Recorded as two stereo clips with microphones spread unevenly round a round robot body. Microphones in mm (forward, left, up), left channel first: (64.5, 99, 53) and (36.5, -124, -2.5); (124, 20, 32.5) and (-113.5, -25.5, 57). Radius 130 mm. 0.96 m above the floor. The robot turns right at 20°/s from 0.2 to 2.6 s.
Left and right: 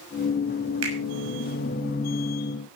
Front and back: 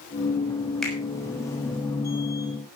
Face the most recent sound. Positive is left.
turn(degrees=-40)